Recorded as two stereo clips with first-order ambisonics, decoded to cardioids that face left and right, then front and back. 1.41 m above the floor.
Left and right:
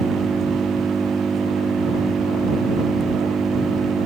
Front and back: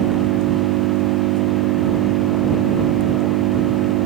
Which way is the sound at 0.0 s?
165° right.